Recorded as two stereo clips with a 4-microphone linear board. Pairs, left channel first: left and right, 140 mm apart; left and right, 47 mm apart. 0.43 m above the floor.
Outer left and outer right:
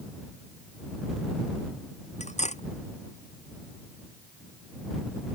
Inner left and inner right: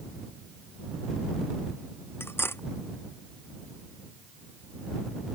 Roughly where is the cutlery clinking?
Left.